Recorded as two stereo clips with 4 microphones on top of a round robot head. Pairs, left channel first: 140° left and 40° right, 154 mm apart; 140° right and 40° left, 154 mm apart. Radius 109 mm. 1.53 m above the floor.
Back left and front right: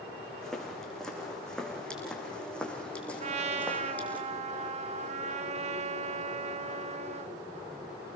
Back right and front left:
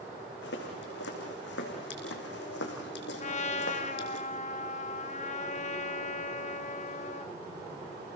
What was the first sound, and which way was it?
Footsteps, 135° right.